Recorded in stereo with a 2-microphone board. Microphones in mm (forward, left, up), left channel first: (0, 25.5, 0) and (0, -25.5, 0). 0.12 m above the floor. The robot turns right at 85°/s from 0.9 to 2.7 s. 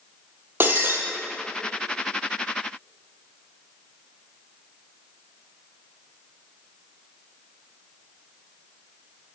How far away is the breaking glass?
About 1.4 m.